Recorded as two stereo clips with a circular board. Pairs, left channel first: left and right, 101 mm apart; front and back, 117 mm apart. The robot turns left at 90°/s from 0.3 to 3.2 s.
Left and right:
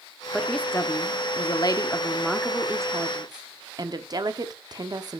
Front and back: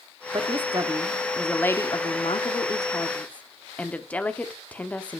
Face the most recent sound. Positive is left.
turn(degrees=-75)